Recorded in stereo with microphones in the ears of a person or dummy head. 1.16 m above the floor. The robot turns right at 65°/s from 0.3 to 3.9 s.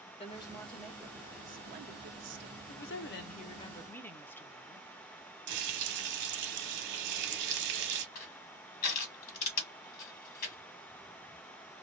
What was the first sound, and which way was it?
A woman speaking, 150° left.